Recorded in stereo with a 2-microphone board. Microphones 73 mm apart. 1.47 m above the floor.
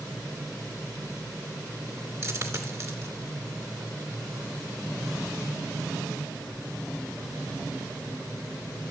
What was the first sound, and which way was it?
A dropped coin, 40° right (ahead or behind).